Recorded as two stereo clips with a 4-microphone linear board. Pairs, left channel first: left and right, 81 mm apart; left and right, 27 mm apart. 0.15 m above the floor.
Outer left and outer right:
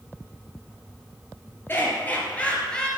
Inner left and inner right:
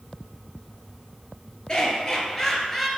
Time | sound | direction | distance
1.7 | laughter | 25° left (ahead or behind) | 3 m